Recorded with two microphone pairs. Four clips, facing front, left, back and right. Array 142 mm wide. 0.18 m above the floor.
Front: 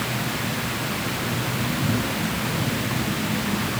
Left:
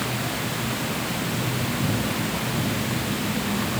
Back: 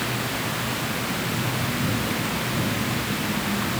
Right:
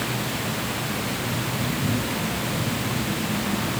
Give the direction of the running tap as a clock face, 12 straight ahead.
No running tap in this recording.